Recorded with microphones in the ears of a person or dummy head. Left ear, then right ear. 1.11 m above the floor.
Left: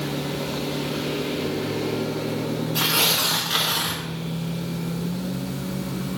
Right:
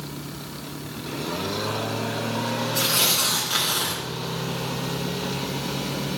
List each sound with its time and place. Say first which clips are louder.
2.8 s tearing paper: left 2 dB; 15° left (ahead or behind), 1.1 m